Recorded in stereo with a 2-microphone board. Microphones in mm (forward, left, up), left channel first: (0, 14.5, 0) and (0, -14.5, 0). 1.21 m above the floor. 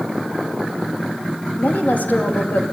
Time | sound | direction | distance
1.6 | a woman speaking | 75° left (ahead or behind) | 2.5 m